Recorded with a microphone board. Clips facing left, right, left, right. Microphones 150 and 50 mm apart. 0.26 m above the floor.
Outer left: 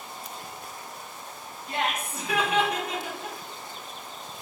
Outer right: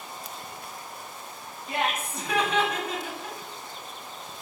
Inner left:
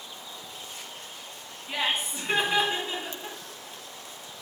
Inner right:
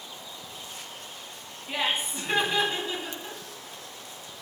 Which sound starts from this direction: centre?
Laughter, at 1.7 s.